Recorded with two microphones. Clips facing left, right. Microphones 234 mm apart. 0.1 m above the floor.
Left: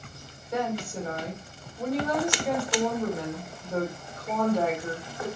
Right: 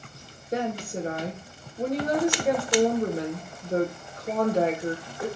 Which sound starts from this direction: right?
A woman speaking, at 0.5 s.